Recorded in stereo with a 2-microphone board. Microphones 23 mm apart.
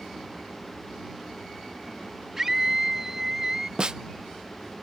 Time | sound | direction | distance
2.4 | a scream | 20° right (ahead or behind) | ?
3.8 | a snare drum | 40° right (ahead or behind) | ?